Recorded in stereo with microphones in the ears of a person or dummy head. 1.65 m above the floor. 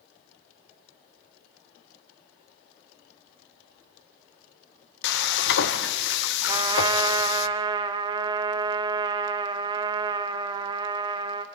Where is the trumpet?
20° right (ahead or behind), 0.9 m.